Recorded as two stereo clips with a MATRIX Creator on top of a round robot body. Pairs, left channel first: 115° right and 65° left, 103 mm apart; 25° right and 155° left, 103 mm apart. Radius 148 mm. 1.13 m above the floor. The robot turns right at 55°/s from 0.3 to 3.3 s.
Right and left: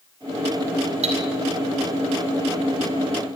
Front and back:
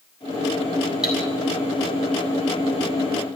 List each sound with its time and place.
1.0 s cutlery clinking: 75° left, 4 m; by 1.1 s 80° left, 4 m